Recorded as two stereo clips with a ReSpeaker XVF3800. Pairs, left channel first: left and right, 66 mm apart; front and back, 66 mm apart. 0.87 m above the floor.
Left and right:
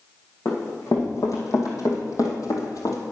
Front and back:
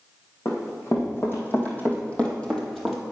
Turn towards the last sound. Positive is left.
turn(degrees=95)